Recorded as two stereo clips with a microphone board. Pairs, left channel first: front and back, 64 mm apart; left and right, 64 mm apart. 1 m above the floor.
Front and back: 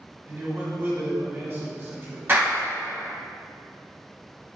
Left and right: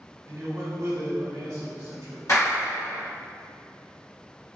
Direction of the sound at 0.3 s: 125° right.